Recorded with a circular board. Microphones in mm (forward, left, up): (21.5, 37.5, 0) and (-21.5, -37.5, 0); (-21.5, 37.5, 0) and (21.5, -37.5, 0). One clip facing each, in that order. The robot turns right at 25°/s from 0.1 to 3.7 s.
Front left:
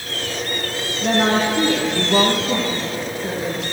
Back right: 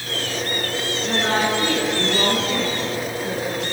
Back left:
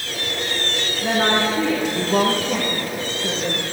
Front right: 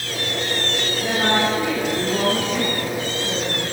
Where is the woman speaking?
40° left, 7 m; by 3.6 s 105° left, 7 m.